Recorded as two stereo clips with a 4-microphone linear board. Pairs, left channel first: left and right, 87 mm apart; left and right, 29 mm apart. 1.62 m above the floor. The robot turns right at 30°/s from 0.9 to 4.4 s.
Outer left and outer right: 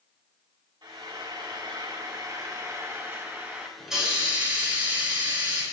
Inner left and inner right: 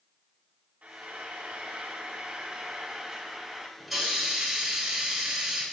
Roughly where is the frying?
Right.